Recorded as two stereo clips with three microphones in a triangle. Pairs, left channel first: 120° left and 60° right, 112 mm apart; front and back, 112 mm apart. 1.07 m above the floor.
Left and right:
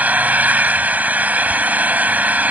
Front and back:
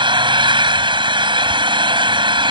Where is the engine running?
135° right.